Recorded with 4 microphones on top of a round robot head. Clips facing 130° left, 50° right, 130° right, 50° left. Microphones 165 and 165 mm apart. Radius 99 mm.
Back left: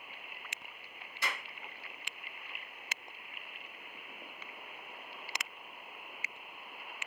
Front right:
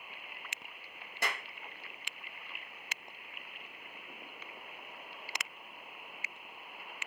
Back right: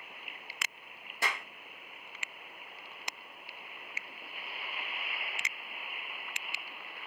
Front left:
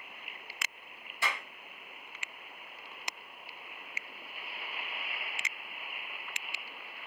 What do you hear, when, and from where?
1.2 s a clap: 85° right, 1.2 m